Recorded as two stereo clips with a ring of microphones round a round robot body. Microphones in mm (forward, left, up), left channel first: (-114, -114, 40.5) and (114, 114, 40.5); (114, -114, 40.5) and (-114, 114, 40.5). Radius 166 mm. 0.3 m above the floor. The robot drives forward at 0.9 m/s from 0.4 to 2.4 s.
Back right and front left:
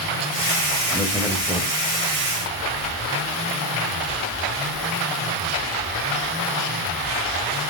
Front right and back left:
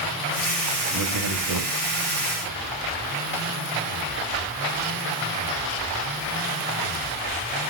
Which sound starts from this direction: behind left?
A man speaking, at 0.9 s.